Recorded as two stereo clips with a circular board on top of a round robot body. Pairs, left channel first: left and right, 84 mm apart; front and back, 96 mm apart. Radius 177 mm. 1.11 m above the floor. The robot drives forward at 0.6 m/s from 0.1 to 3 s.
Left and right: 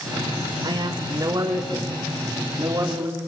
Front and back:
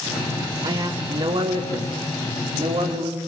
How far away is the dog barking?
I don't hear a dog barking.